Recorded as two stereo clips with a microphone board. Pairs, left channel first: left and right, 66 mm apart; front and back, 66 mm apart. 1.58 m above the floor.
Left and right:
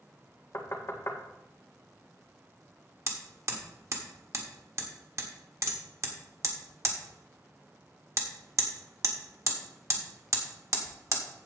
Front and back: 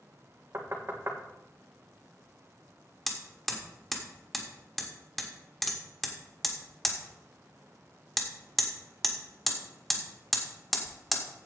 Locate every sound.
0.5 s knocking: 135° left, 1.6 m
3.1 s hammering: 90° right, 1.6 m